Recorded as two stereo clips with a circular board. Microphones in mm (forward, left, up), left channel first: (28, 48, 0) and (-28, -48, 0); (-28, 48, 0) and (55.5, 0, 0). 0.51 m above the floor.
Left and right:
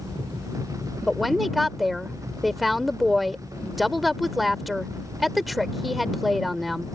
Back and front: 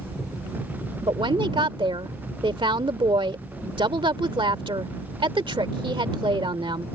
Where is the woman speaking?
30° right.